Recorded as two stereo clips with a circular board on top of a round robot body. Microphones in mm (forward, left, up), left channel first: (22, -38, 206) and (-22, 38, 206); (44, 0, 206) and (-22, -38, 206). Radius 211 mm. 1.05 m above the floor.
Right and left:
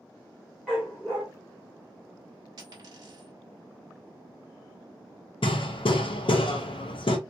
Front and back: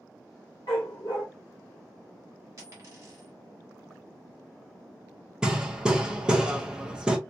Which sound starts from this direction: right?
Hammering, at 5.4 s.